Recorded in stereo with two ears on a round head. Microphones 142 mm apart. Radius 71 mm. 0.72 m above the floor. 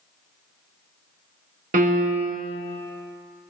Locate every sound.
1.7 s a piano: 50° right (ahead or behind), 0.8 m